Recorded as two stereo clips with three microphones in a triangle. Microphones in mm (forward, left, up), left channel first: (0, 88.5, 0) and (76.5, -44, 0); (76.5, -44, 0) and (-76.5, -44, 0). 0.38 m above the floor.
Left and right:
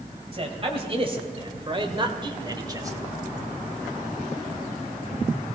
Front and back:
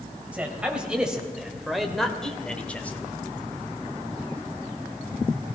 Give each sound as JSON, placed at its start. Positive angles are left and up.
{"t": 0.3, "sound": "a man speaking", "azimuth_deg": -100, "distance_m": 2.0}